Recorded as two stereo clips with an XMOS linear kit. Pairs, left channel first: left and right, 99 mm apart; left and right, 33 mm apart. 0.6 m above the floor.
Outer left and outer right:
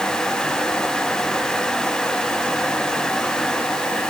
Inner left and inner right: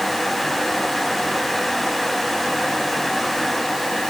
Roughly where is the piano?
No piano in this recording.